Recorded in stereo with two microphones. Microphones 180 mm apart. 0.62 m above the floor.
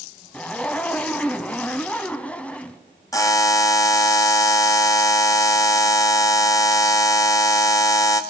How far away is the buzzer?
About 1.1 m.